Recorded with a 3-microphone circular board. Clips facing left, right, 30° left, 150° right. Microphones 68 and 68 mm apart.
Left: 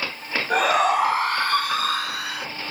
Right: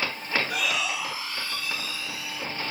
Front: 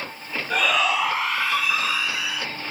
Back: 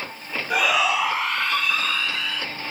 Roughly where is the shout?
Behind left.